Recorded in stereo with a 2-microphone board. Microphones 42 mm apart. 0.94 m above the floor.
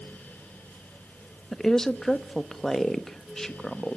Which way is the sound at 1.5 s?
10° left (ahead or behind).